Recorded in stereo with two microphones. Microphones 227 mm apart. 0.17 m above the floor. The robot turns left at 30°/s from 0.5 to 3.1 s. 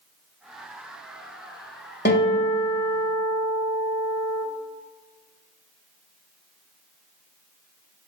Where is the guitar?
60° left, 1.1 m; by 4.4 s 30° left, 1.1 m.